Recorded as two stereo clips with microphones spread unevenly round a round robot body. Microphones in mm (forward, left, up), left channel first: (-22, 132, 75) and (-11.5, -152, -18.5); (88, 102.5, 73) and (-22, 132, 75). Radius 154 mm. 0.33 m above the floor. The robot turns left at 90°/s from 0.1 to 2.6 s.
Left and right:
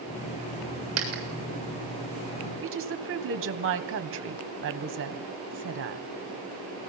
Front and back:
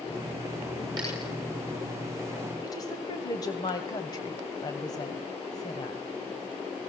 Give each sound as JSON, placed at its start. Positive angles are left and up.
{"t": 1.0, "sound": "a dropped coin", "azimuth_deg": -130, "distance_m": 6.5}
{"t": 2.6, "sound": "a woman speaking", "azimuth_deg": -70, "distance_m": 1.9}